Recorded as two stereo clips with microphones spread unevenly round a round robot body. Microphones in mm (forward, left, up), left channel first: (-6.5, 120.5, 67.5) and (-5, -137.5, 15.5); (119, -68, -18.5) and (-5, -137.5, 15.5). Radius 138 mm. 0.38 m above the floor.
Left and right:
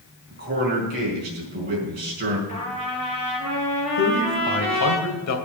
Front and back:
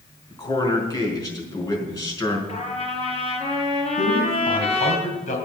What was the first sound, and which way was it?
A man speaking, 35° right.